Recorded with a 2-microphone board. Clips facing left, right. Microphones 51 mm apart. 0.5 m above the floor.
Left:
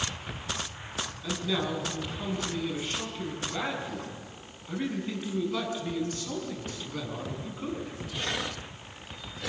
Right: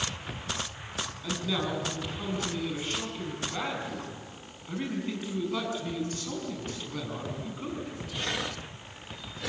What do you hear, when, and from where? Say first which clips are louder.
1.2 s a man speaking: left 1 dB; 5° right (ahead or behind), 5.5 m